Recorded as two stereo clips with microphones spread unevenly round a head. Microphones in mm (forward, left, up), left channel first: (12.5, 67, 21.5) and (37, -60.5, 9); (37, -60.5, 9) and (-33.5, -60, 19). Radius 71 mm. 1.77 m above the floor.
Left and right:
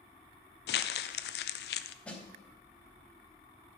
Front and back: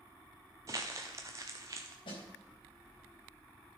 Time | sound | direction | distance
0.7 | crumpling | 110° left | 0.5 m
2.0 | a snare drum | 25° left | 3.5 m